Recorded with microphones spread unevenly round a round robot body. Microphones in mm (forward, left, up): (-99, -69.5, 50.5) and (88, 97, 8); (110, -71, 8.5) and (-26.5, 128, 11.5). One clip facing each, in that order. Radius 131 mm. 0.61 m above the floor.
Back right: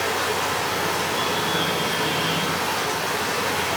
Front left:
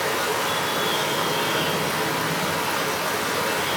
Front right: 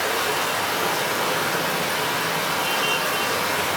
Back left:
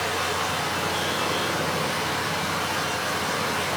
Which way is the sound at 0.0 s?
30° right.